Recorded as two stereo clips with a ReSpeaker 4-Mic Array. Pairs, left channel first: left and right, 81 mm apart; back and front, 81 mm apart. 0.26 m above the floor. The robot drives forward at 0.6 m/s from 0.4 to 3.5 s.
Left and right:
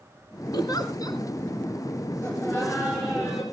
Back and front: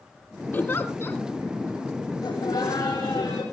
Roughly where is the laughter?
Behind left.